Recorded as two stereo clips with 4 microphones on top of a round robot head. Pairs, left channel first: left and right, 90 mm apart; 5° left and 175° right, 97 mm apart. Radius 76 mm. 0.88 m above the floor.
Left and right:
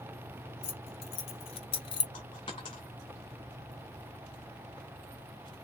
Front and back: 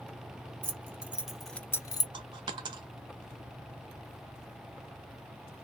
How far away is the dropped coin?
About 0.5 m.